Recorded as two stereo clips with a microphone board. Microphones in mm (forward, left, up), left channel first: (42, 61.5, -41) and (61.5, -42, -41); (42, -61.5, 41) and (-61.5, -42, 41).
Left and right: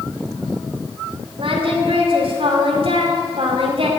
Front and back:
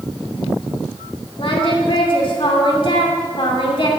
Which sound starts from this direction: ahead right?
Singing, at 1.4 s.